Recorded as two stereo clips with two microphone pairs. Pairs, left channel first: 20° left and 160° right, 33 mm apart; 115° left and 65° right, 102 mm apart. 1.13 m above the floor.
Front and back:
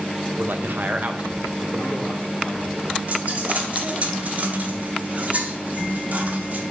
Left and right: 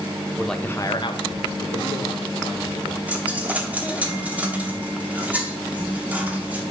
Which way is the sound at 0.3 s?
150° right.